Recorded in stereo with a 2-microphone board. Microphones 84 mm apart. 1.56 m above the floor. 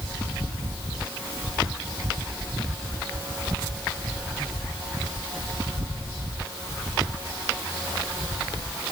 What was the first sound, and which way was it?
Only background noise.